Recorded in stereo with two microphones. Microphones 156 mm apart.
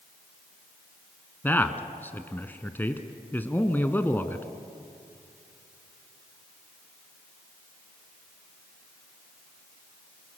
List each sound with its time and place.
1.4 s a man speaking: 10° left (ahead or behind), 1.4 m